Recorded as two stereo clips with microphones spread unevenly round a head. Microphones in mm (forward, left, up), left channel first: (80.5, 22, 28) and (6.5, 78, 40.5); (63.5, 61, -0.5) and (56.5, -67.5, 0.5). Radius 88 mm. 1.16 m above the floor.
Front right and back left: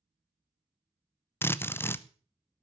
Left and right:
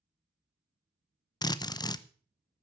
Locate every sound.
1.4 s a drill: 30° left, 0.9 m